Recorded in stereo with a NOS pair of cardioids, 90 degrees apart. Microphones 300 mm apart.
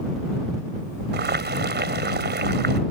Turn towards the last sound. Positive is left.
turn(degrees=-35)